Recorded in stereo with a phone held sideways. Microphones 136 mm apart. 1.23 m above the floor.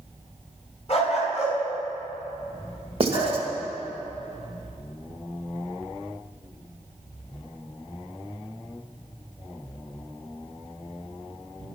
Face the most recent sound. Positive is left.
turn(degrees=-45)  # may be behind; listen again after turning